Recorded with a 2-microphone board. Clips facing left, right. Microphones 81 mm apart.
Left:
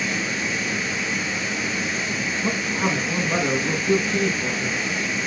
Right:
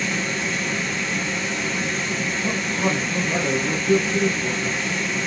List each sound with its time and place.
0.0 s running water: 5° left (ahead or behind), 1.2 m
2.4 s a man speaking: 50° left (ahead or behind), 3 m